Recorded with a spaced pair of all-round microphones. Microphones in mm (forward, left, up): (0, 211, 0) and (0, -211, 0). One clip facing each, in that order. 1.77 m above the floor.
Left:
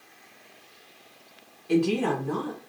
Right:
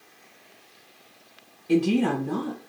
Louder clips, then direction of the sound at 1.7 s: Right 2 dB; 35° right (ahead or behind).